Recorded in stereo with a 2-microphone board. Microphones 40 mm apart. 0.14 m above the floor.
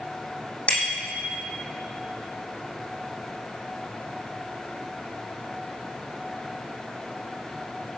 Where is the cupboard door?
No cupboard door in this recording.